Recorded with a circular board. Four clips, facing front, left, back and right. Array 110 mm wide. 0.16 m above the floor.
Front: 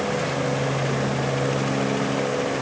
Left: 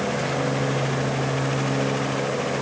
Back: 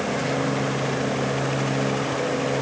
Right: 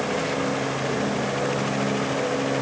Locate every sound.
Only background noise.